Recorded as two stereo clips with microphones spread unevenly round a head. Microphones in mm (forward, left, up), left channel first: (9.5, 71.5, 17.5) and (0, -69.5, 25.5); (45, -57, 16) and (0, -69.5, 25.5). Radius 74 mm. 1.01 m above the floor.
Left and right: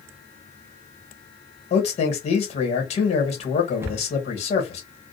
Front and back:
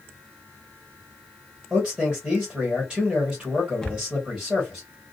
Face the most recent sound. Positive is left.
turn(degrees=-25)